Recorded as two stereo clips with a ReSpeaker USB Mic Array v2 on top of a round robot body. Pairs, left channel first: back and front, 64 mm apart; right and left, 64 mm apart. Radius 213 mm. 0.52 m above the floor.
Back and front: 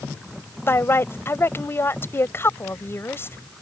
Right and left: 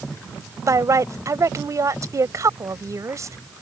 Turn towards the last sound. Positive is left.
turn(degrees=130)